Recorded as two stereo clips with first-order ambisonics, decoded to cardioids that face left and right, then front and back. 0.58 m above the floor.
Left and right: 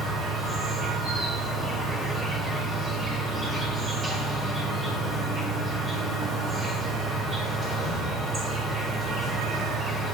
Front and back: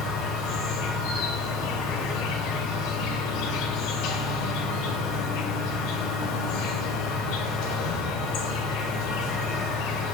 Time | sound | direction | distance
0.0 | an insect | 15° right | 2.0 m